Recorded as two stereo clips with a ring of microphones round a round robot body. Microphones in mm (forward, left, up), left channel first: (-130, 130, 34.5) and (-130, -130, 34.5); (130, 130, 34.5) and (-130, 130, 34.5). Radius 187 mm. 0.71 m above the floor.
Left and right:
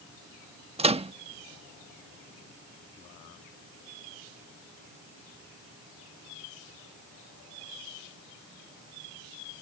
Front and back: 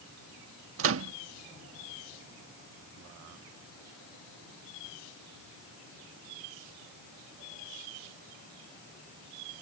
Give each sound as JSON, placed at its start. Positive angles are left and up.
{"t": 0.8, "sound": "a microwave", "azimuth_deg": -155}